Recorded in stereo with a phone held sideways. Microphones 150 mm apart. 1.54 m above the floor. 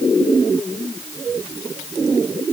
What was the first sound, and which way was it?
Only background noise.